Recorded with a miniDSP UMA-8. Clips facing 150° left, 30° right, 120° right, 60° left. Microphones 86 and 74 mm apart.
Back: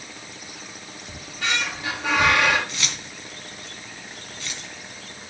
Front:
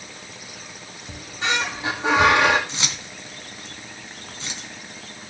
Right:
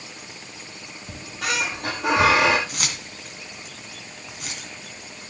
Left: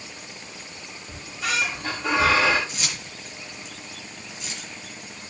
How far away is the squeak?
About 3.5 m.